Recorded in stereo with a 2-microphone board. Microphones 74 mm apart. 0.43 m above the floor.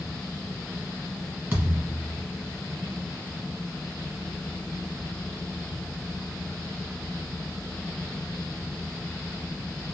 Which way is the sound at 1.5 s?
20° right (ahead or behind).